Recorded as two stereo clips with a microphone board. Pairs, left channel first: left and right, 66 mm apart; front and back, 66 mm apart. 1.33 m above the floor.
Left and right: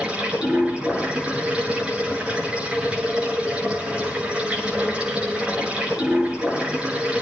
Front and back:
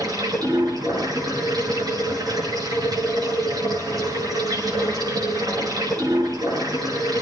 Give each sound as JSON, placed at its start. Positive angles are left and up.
{"t": 0.0, "sound": "running water", "azimuth_deg": -160, "distance_m": 8.0}